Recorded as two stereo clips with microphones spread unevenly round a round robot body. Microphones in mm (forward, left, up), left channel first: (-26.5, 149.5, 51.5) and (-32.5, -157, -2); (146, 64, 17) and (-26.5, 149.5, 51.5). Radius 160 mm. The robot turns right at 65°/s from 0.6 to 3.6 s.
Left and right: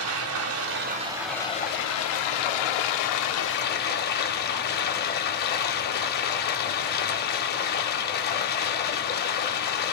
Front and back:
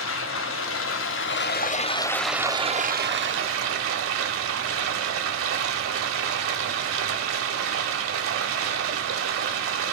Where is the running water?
45° right, 0.8 m; by 9.9 s 150° left, 0.8 m.